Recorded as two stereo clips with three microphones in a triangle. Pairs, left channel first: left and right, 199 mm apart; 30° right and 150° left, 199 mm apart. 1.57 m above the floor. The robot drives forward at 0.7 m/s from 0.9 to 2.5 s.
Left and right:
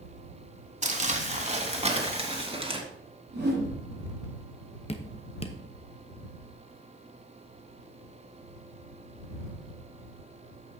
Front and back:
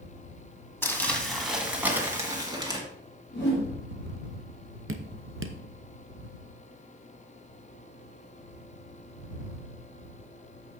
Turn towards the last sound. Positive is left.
turn(degrees=145)